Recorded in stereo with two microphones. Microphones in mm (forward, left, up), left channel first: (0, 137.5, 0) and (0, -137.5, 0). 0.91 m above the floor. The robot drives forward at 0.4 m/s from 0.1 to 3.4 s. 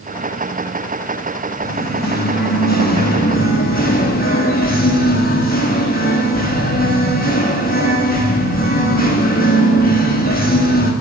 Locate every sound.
1.6 s singing: 40° left (ahead or behind), 4.5 m; by 10.9 s 35° left (ahead or behind), 5.5 m